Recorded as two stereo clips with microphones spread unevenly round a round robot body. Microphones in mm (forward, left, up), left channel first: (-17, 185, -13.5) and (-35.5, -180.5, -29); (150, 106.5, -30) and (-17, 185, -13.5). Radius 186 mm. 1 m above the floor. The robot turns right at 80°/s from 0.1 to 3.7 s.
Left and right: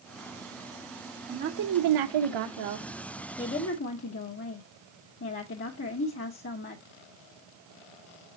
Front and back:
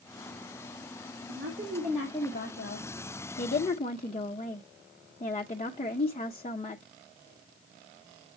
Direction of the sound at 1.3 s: 165° right.